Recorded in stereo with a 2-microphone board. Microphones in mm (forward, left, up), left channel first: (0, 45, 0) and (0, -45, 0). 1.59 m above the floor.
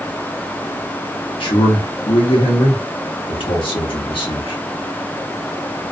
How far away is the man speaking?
About 0.8 m.